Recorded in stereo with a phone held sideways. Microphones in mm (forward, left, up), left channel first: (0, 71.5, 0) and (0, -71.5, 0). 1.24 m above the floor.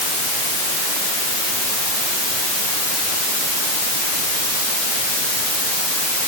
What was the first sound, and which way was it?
Only background noise.